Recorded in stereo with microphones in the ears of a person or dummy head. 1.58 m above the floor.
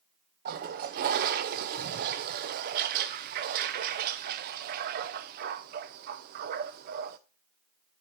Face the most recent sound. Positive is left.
turn(degrees=-50)  # may be behind; listen again after turning